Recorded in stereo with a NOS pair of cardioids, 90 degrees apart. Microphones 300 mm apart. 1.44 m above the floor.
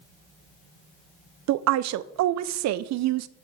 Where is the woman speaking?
70° right, 0.5 m.